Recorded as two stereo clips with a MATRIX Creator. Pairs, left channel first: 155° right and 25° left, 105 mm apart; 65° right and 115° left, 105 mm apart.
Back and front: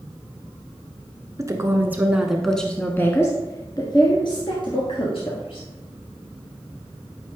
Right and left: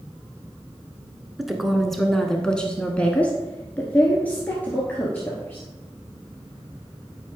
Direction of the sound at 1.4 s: 25° left.